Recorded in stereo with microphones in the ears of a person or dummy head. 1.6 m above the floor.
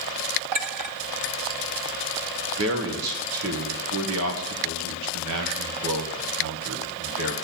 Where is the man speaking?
80° right, 1.8 m.